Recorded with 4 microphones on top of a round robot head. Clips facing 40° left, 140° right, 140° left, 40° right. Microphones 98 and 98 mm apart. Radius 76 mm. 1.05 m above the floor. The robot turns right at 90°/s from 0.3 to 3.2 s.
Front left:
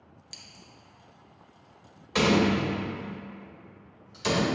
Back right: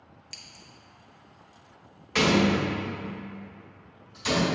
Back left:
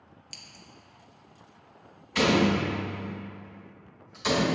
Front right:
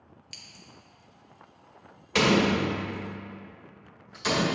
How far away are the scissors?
About 0.7 m.